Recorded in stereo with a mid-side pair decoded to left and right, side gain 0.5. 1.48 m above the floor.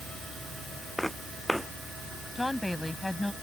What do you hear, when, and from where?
1.0 s footsteps: straight ahead
2.4 s a woman speaking: 10° left